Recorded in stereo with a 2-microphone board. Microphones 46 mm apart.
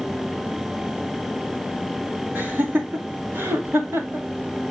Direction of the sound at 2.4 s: 45° right (ahead or behind).